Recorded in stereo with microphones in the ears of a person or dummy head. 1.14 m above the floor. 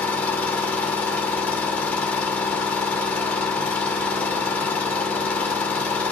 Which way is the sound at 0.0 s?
10° left (ahead or behind).